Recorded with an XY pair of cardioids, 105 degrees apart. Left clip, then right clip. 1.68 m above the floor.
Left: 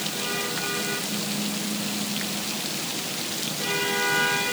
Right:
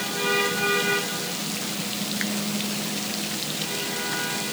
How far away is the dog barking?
I don't hear a dog barking.